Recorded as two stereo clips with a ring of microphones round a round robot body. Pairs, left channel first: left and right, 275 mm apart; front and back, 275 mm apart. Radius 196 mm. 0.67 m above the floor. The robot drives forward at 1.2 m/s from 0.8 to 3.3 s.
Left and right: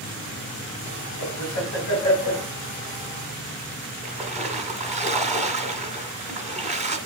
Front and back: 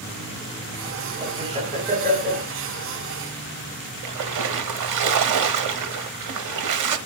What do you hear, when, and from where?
1.2 s laughter: 110° left, 4 m; by 2.5 s 125° left, 5 m
4.0 s a splash: 175° left, 1.0 m